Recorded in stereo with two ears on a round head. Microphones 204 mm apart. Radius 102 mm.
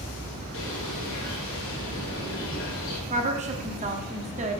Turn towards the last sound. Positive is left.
turn(degrees=-30)  # may be behind; listen again after turning